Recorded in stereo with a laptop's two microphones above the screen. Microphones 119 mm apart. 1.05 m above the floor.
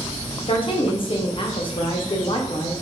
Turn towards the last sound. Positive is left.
turn(degrees=45)  # may be behind; listen again after turning